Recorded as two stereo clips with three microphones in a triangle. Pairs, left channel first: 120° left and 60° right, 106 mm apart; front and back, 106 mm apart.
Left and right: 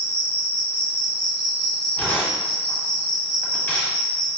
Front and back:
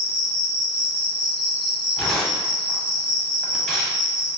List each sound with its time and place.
0.0 s an insect: 145° left, 1.1 m
2.0 s tearing paper: 80° left, 0.9 m